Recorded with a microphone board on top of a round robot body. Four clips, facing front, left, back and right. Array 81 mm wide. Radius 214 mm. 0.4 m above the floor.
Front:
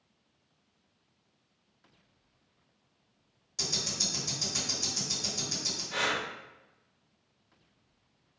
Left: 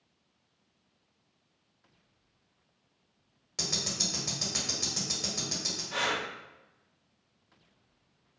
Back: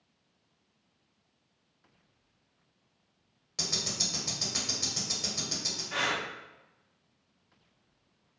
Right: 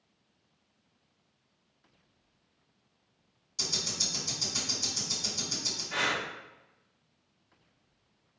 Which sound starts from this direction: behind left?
Ticking, at 3.6 s.